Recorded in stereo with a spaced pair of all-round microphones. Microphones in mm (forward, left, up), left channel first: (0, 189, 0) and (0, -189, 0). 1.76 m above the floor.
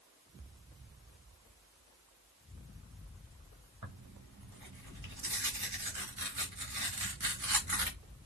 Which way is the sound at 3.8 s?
55° right (ahead or behind).